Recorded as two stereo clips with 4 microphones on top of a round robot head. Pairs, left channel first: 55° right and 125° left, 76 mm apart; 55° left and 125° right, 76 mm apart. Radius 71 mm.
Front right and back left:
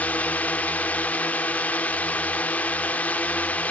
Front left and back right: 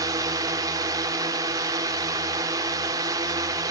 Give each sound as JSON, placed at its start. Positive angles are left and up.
{"t": 0.0, "sound": "a drone", "azimuth_deg": -120}